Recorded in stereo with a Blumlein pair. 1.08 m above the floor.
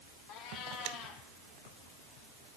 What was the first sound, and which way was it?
A cat meowing, 40° left.